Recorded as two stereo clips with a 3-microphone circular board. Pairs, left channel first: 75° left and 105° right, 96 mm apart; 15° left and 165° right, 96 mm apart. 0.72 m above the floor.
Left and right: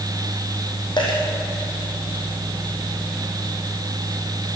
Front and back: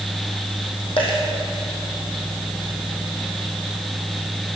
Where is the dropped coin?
40° left, 4 m.